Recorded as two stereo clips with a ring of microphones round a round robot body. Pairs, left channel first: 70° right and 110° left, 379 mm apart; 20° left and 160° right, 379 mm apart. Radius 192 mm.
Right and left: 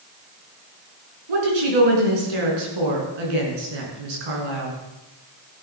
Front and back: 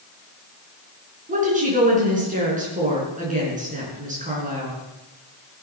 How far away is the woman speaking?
About 5 m.